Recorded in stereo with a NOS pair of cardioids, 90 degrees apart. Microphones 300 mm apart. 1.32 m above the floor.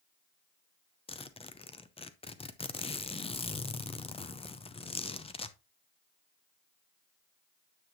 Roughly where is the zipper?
Ahead.